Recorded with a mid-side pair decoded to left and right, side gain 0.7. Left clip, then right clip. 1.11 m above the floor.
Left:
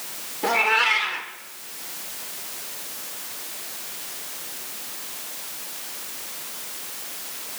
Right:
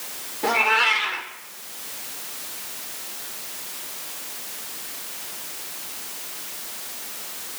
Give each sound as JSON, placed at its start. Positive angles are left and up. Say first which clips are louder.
{"t": 0.4, "sound": "a cat meowing", "louder": "right 1 dB", "azimuth_deg": 0, "distance_m": 1.5}